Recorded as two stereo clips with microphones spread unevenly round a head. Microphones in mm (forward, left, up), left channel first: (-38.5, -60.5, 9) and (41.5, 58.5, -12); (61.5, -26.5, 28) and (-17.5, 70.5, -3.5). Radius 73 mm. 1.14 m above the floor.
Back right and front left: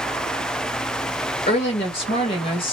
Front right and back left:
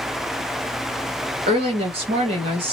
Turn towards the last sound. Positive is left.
turn(degrees=180)